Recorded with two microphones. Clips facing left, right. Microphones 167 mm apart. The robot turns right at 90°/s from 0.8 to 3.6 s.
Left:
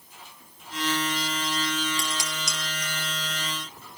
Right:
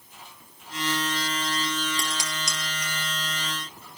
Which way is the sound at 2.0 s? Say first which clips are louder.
Even; 40° right (ahead or behind).